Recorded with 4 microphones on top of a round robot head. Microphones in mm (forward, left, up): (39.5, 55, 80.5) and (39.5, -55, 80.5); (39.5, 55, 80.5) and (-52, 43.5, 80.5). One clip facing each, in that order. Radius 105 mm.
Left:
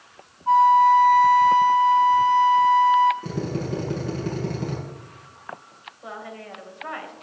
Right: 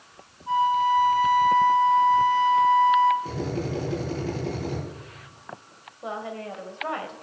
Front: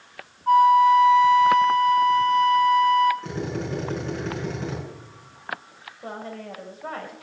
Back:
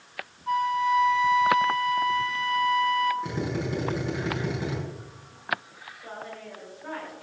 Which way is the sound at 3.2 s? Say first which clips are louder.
Left 1 dB, even; 105° left.